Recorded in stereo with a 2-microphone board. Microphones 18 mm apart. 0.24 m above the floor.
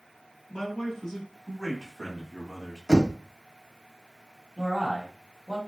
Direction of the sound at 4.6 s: 25° left (ahead or behind).